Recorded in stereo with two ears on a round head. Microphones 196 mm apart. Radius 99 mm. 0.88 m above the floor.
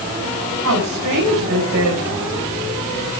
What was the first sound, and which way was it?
A woman speaking, 60° right (ahead or behind).